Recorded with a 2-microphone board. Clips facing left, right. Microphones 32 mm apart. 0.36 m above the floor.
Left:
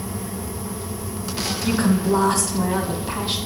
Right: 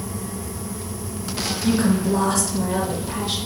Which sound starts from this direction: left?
A woman speaking, at 1.6 s.